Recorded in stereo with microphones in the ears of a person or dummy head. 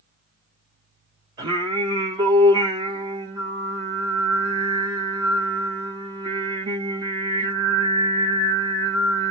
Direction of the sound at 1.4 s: 25° right (ahead or behind).